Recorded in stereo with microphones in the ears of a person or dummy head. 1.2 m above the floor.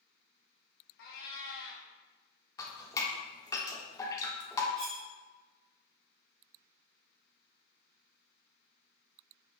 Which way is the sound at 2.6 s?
20° left (ahead or behind).